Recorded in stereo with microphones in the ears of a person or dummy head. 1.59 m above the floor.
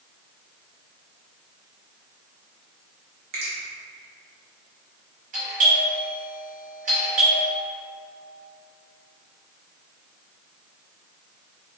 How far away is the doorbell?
About 1.3 m.